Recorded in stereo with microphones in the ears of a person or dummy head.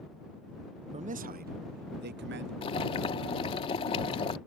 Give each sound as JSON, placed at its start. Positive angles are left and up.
{"t": 0.9, "sound": "a man speaking", "side_deg": -30}
{"t": 2.6, "sound": "boiling", "side_deg": 30}